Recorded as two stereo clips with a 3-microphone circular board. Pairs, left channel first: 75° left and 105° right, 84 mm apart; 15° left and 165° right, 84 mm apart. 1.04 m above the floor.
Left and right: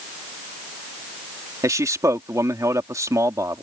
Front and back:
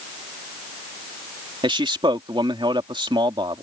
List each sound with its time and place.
1.6 s a man speaking: 155° right